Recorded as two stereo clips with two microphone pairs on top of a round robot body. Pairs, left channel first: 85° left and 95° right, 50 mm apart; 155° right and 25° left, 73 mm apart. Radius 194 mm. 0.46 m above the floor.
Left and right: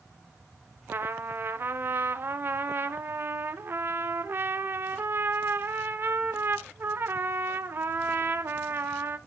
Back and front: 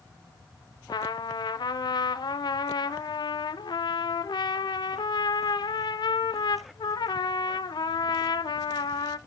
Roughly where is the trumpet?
Behind right.